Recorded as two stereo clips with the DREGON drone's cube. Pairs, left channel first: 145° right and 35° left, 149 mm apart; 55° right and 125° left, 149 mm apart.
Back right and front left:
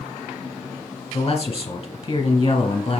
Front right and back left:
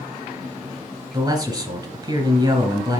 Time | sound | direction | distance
1.1 | a man speaking | 160° left | 1.5 m